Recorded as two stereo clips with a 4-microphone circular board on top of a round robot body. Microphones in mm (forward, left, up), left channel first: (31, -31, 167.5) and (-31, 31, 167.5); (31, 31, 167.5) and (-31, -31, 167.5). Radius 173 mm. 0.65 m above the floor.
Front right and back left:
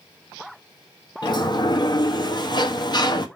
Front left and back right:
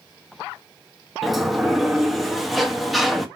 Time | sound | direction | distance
1.2 | a sliding door | 45° right | 1.8 m